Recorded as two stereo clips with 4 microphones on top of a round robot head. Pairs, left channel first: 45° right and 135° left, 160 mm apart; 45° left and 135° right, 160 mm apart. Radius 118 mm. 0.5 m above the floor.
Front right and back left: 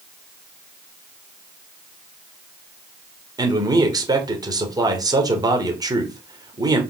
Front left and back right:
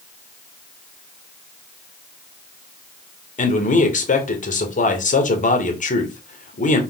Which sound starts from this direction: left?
A man speaking, at 3.4 s.